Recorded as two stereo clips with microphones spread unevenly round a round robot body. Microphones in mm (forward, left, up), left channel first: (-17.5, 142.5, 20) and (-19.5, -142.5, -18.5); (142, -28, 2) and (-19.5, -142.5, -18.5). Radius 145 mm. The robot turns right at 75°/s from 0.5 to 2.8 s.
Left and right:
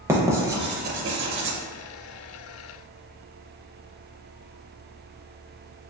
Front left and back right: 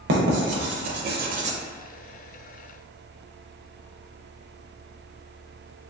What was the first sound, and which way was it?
Writing, 165° right.